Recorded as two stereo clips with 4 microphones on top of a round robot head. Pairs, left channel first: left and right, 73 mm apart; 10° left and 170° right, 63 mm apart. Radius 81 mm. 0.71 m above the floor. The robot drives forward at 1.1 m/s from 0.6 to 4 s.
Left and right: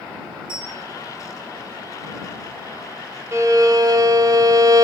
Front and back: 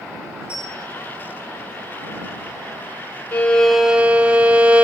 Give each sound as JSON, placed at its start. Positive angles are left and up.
{"t": 0.5, "sound": "a bell", "azimuth_deg": -95, "distance_m": 9.5}
{"t": 3.3, "sound": "a violin", "azimuth_deg": -50, "distance_m": 1.0}